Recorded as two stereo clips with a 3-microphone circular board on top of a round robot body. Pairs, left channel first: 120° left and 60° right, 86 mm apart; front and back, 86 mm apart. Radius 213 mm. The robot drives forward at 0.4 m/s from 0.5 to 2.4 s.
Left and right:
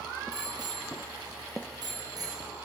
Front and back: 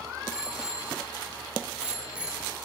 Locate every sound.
0.3 s a bicycle bell: 95° right, 4.5 m; by 2.5 s 105° right, 5 m